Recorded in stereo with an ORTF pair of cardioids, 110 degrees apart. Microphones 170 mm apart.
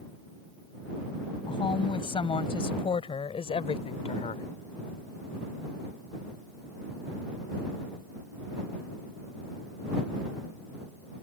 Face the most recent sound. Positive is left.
turn(degrees=40)